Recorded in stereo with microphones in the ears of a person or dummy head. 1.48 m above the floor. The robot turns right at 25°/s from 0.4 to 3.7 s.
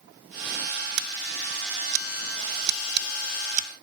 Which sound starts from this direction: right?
Scissors, at 1.0 s.